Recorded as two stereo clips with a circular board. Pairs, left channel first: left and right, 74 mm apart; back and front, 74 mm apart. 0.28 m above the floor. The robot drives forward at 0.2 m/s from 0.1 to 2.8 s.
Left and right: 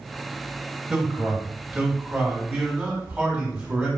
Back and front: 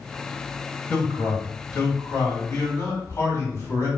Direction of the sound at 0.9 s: 165° right.